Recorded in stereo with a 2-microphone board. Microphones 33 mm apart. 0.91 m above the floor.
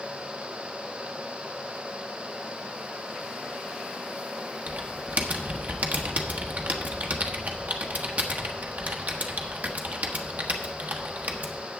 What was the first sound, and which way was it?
Typing on a keyboard, 55° right (ahead or behind).